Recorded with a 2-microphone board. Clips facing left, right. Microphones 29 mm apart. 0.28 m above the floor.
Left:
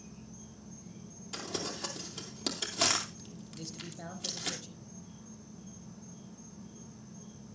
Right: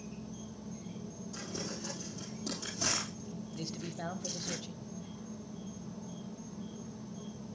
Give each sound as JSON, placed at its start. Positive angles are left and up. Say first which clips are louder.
{"t": 0.0, "sound": "an insect", "louder": "right 5 dB", "side_deg": -80, "distance_m": 2.5}
{"t": 1.3, "sound": "crumpling", "louder": "left 4 dB", "side_deg": 85, "distance_m": 2.5}
{"t": 3.5, "sound": "a man speaking", "louder": "right 2 dB", "side_deg": -25, "distance_m": 1.1}